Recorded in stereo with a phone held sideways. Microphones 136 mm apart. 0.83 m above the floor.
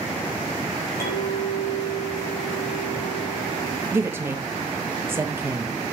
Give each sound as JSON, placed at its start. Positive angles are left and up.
{"t": 1.0, "sound": "a clink", "side_deg": 90, "distance_m": 3.0}
{"t": 3.9, "sound": "a woman speaking", "side_deg": -15, "distance_m": 1.1}